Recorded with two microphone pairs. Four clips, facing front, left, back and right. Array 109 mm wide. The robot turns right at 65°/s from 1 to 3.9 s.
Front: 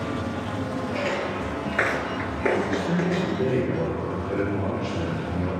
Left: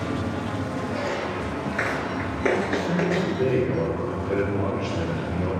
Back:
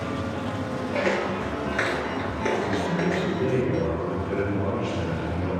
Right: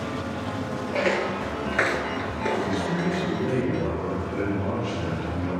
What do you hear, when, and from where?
0.9 s footsteps: 135° right, 1.1 m; by 3.4 s 145° left, 1.2 m
2.5 s a man speaking: straight ahead, 3.5 m; by 5.6 s 90° left, 3.5 m